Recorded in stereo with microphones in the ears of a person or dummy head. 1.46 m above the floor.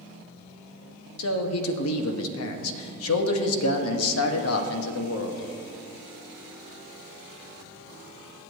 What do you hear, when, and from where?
1.2 s a man speaking: 75° left (ahead or behind), 1.1 m